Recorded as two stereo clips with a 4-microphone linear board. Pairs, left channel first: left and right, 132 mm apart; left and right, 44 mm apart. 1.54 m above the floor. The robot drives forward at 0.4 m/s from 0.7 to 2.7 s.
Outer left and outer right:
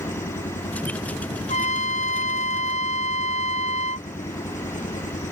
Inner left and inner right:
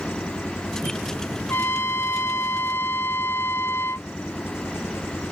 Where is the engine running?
70° left (ahead or behind).